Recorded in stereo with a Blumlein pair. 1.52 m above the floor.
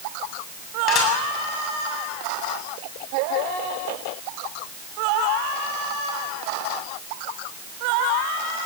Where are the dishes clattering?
30° left, 7.5 m.